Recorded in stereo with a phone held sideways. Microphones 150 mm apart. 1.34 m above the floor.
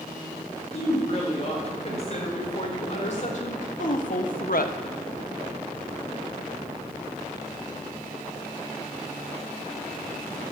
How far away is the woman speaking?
About 6 m.